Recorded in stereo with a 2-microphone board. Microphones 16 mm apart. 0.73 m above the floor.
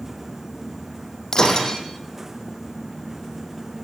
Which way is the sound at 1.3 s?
45° left (ahead or behind).